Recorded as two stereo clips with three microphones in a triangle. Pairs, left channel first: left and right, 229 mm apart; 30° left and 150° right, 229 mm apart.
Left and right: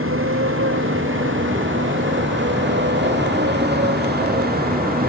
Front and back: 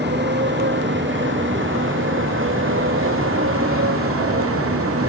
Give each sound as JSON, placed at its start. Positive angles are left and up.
{"t": 0.0, "sound": "a motorcycle", "azimuth_deg": -110}